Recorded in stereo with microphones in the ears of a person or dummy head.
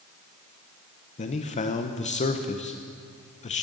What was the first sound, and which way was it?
A man speaking, 30° left (ahead or behind).